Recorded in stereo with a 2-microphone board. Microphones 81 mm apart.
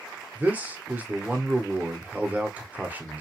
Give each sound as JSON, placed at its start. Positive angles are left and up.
{"t": 0.3, "sound": "a man speaking", "side_deg": -20, "distance_m": 0.8}